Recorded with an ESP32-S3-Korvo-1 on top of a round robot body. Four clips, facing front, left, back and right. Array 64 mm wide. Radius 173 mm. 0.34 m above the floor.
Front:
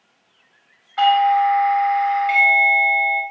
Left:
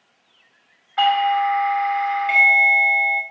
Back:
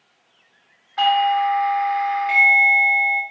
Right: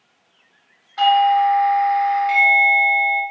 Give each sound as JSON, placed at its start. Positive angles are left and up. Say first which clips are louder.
{"t": 1.0, "sound": "a doorbell", "louder": "right 3 dB, front 3 dB", "azimuth_deg": 75, "distance_m": 1.4}